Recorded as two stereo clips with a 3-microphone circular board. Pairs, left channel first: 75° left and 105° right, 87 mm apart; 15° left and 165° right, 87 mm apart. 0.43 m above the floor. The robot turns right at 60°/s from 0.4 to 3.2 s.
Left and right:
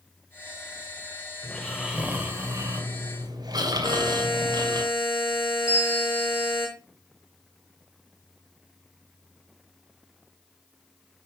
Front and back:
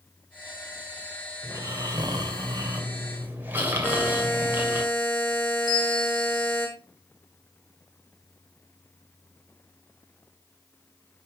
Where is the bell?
25° right, 3 m.